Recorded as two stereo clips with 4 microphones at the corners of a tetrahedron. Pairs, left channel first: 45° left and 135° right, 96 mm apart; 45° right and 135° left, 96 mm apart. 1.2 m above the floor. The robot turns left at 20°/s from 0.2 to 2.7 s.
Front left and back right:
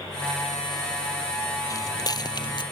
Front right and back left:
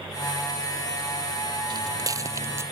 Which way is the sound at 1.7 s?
95° left.